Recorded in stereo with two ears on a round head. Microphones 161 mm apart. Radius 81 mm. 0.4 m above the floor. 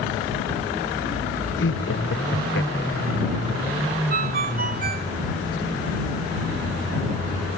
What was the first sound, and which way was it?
Laughter, 75° left (ahead or behind).